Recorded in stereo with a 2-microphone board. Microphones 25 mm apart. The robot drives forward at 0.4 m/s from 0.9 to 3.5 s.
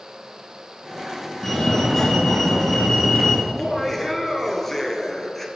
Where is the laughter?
15° left (ahead or behind), 2.0 m.